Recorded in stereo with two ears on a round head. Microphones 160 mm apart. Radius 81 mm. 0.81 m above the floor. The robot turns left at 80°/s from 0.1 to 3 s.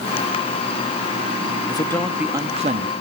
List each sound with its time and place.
1.7 s a man speaking: 30° left, 1.5 m; by 2.9 s 65° right, 1.5 m